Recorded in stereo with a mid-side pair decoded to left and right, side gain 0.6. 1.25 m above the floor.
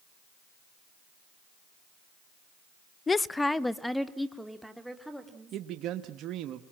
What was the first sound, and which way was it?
A woman speaking, 25° left.